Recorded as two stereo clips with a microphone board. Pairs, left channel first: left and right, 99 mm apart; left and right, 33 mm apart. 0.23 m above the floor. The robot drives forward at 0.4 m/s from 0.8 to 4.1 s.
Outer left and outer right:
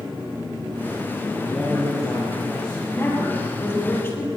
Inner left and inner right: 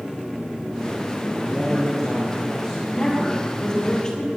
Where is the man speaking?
10° left (ahead or behind), 4.5 m.